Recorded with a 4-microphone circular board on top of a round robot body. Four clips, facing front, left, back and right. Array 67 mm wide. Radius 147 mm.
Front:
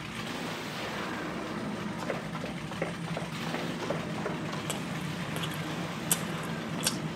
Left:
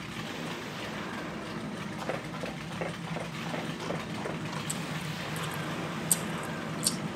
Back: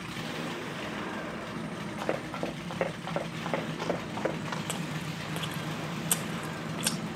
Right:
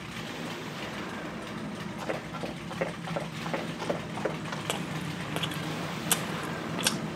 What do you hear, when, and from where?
2.0 s running footsteps: 170° left, 3 m; by 4.6 s 155° right, 6 m
4.7 s chewing: 90° right, 0.5 m